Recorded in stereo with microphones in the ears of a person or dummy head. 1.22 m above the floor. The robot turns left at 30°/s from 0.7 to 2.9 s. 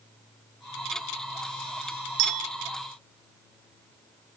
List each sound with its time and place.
2.2 s a clink: 45° right (ahead or behind), 0.5 m; by 2.5 s 40° right (ahead or behind), 0.5 m